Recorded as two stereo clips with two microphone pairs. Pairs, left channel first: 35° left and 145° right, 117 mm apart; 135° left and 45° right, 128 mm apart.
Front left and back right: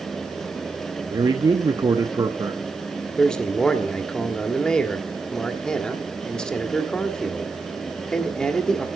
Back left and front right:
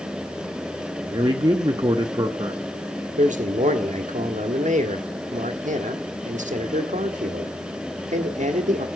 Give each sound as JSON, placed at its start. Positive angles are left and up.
{"t": 1.1, "sound": "a man speaking", "azimuth_deg": -95, "distance_m": 0.8}
{"t": 3.2, "sound": "a man speaking", "azimuth_deg": -50, "distance_m": 1.5}